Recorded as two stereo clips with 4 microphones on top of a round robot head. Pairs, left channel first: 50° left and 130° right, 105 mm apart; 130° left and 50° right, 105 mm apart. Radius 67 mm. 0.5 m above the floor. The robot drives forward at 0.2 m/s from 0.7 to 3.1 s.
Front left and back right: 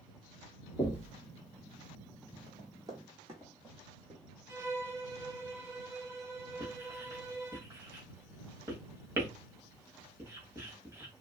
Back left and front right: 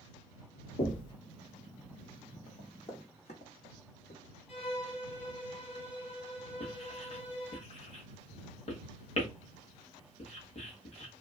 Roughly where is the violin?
Behind.